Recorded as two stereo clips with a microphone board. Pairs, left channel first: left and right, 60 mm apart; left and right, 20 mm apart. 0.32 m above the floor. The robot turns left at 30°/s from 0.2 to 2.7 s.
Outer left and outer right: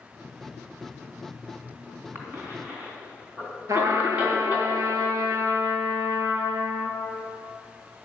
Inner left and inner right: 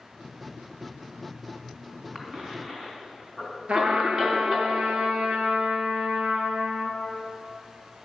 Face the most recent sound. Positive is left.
turn(degrees=-70)  # may be behind; listen again after turning